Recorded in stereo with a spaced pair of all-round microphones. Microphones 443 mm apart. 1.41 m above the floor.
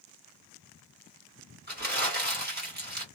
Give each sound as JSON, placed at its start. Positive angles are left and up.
{"t": 1.7, "sound": "crumpling", "side_deg": -20, "distance_m": 1.7}